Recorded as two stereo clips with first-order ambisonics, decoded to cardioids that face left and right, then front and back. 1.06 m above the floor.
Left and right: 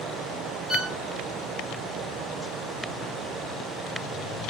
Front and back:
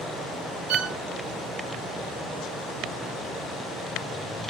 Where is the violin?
175° left, 0.6 m.